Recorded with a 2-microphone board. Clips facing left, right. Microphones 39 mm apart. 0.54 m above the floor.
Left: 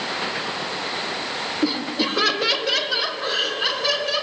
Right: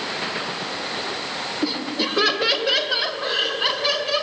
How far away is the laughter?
About 1.6 m.